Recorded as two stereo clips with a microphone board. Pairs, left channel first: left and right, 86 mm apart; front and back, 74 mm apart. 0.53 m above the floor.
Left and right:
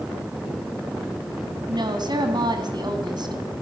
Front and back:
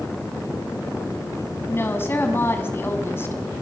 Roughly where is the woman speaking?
Ahead right.